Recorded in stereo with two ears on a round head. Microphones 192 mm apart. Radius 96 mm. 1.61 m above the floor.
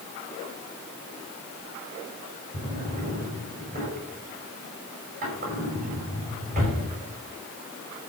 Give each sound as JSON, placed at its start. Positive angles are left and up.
{"t": 2.5, "sound": "a drawer", "side_deg": -40, "distance_m": 5.5}